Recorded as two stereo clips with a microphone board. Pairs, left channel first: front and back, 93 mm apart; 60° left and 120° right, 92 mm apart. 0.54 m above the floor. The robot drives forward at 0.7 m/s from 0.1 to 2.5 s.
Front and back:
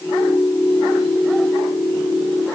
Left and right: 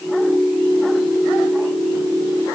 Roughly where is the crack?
No crack in this recording.